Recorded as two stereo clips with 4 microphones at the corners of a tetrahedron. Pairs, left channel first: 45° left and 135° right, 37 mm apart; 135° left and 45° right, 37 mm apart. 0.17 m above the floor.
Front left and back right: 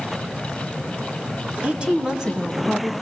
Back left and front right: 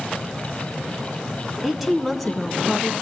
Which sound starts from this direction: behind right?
A woman speaking, at 1.6 s.